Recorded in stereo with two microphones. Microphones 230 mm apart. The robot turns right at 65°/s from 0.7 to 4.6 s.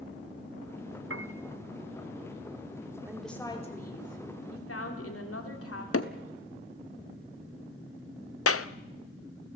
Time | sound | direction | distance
1.1 | a piano | 65° right (ahead or behind) | 0.8 m
3.1 | a woman speaking | 10° right | 3.5 m
5.9 | hammering | 80° left | 1.1 m
8.5 | a clap | 75° left (ahead or behind) | 0.6 m